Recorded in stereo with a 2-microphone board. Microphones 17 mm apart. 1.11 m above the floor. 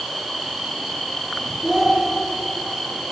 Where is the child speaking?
10° right (ahead or behind), 3.5 m.